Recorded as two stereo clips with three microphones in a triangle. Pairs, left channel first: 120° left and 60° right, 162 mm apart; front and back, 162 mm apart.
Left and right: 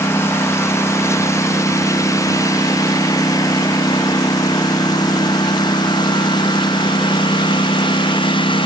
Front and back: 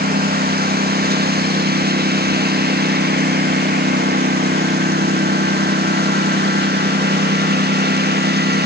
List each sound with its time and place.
0.0 s a lawn mower: 165° right; by 8.7 s straight behind